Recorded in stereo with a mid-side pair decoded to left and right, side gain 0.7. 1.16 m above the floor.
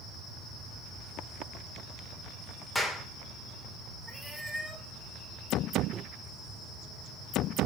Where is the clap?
15° left, 2.5 m.